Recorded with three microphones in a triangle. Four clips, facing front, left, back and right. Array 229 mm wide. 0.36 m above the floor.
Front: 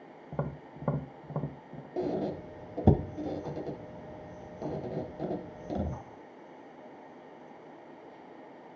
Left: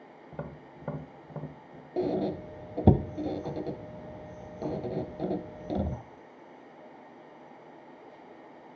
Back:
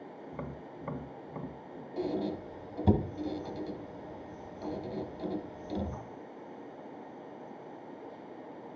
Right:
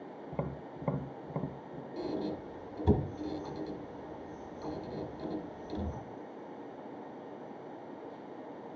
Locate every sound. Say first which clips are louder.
0.3 s tapping: right 2 dB, front 7 dB; 15° right, 0.7 m
2.0 s a squeak: left 7 dB, front 1 dB; 70° left, 0.7 m